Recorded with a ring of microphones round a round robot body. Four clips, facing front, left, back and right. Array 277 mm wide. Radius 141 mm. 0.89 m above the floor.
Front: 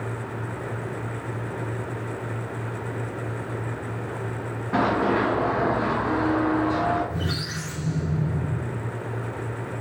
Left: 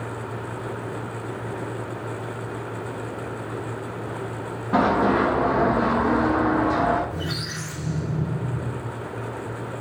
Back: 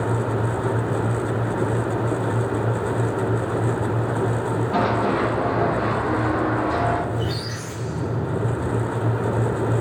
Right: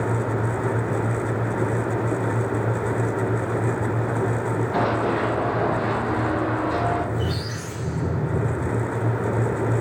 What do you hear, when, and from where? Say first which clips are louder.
4.7 s running footsteps: left 5 dB, front 1 dB; 80° left, 4 m; by 7.0 s 100° left, 3 m
7.1 s a squeak: right 3 dB, back 3 dB; 35° left, 3 m